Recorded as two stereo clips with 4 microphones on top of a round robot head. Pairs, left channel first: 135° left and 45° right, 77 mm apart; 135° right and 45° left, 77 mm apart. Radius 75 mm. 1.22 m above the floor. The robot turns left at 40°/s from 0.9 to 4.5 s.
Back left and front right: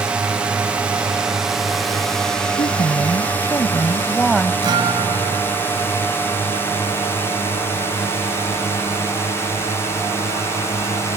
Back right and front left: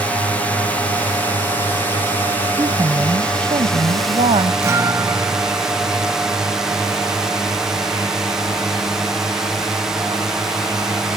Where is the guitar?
10° right.